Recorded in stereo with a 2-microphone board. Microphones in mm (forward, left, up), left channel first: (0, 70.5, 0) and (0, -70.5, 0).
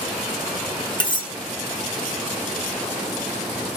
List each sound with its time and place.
1.0 s cutlery clinking: 35° left (ahead or behind), 0.6 m